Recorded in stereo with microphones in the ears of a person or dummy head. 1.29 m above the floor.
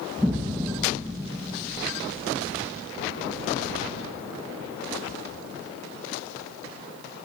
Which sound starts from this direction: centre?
An explosion, at 0.2 s.